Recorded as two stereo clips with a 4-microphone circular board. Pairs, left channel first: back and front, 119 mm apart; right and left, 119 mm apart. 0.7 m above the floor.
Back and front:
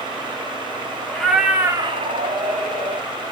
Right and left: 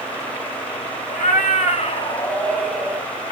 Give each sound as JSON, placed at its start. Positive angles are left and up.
{"t": 1.1, "sound": "a cat meowing", "azimuth_deg": -95, "distance_m": 1.2}